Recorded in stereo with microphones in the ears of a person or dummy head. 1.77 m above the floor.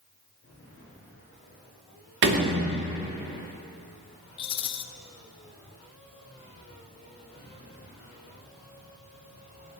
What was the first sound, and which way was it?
A door slam, 60° right (ahead or behind).